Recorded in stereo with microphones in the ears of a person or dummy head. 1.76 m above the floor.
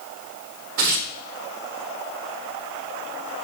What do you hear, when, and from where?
0.8 s tearing paper: 50° right (ahead or behind), 1.5 m